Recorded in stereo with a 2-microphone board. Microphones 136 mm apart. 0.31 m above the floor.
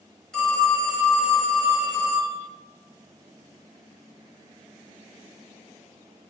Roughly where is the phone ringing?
Centre.